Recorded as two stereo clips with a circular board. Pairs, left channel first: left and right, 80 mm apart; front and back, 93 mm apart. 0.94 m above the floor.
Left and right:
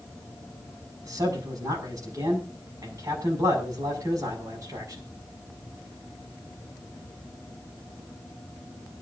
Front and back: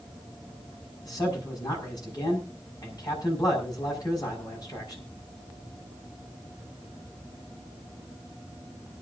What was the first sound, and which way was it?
A man speaking, 45° right.